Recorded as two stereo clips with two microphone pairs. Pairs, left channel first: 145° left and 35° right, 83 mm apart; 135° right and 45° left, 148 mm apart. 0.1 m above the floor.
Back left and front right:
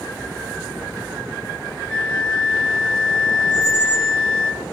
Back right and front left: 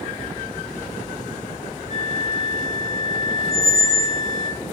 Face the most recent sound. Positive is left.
turn(degrees=-65)